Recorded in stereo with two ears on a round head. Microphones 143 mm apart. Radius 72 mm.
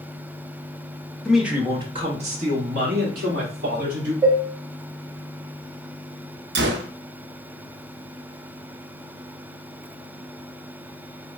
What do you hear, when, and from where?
1.2 s a man speaking: 5° left (ahead or behind), 1.1 m; by 4.1 s 65° right (ahead or behind), 3 m
4.2 s dishes clattering: 25° right (ahead or behind), 1.3 m
6.5 s a gunshot: 80° right, 0.7 m